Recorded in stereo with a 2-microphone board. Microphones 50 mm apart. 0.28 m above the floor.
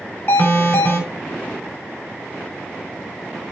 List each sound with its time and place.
0.3 s an alarm: 50° left (ahead or behind), 4 m